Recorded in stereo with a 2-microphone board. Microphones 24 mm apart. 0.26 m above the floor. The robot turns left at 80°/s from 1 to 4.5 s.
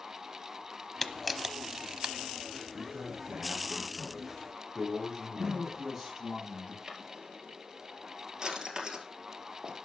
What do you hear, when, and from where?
1.0 s a camera shutter: 20° left (ahead or behind), 0.7 m; by 2.1 s 45° right (ahead or behind), 0.7 m
2.7 s a man speaking: 45° right, 3.5 m; by 5.8 s 175° left, 3.5 m
5.3 s a man speaking: 20° right (ahead or behind), 7.5 m
6.9 s a drawer: 30° right (ahead or behind), 1.9 m